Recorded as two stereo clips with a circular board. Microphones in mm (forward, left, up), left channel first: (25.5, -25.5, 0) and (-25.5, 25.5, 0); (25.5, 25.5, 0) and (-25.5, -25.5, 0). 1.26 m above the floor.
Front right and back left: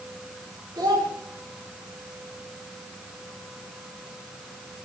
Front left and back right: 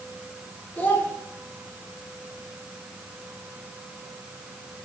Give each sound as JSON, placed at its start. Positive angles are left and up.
{"t": 0.8, "sound": "a child speaking", "azimuth_deg": 110, "distance_m": 3.5}